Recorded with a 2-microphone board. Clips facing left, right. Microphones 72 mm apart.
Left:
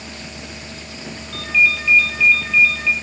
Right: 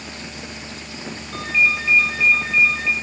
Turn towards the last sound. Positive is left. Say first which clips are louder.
# left 2 dB
turn(degrees=-25)  # may be behind; listen again after turning